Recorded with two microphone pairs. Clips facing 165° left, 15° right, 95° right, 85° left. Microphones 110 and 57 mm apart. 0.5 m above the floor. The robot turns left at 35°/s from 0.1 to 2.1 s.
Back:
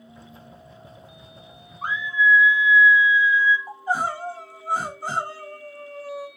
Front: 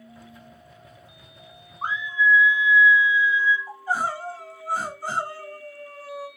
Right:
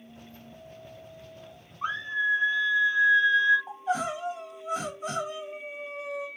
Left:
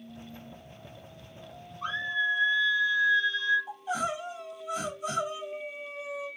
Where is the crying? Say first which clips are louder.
Back 1 dB, right 2 dB; 130° right, 1.4 m.